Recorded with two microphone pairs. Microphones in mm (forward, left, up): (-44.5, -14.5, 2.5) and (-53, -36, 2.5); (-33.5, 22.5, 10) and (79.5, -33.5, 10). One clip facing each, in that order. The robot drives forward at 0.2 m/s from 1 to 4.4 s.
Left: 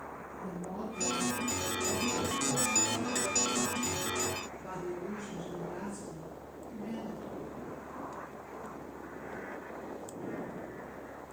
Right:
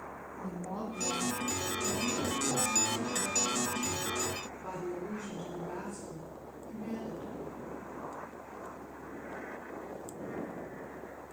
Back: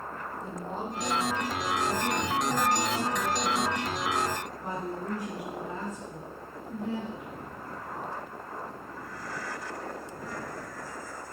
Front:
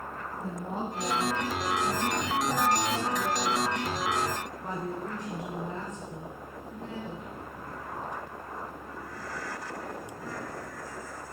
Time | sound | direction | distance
0.4 | a woman speaking | 100° right | 1.7 m